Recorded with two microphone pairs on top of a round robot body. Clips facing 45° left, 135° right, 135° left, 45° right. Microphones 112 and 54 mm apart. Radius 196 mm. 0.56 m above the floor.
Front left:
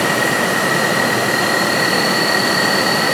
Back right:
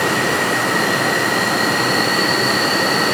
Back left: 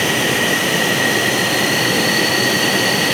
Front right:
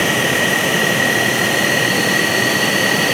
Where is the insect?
20° left, 0.9 m.